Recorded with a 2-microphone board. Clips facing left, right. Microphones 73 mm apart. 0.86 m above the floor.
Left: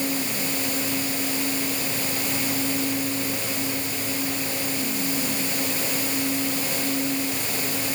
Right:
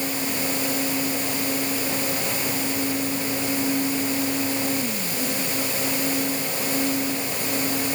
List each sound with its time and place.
Only background noise.